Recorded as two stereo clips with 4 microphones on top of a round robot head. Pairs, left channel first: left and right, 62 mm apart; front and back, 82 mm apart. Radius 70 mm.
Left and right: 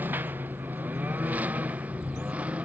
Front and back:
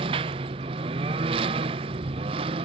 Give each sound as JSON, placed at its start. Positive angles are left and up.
{"t": 0.0, "sound": "a lawn mower", "azimuth_deg": -155}